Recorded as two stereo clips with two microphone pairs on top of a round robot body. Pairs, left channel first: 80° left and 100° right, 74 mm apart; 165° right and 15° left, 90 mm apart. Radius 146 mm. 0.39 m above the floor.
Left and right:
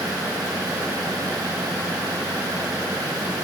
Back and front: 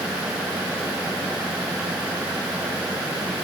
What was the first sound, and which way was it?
Only background noise.